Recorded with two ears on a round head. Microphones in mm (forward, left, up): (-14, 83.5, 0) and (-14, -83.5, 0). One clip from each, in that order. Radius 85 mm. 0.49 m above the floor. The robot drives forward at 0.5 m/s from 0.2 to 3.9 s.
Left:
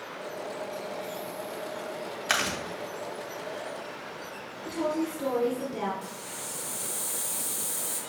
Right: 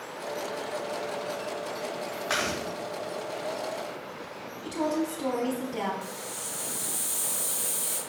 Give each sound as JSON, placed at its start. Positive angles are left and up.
{"t": 2.3, "sound": "chewing", "side_deg": 65, "distance_m": 2.5}
{"t": 4.7, "sound": "a woman speaking", "side_deg": -25, "distance_m": 1.1}
{"t": 6.0, "sound": "a hiss", "side_deg": -25, "distance_m": 1.8}